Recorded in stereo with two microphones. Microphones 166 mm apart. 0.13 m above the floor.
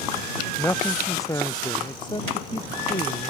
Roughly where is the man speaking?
Centre.